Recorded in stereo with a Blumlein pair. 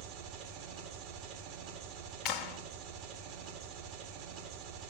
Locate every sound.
0.0 s an engine running: 45° right, 2.0 m
2.2 s a clap: 35° left, 1.1 m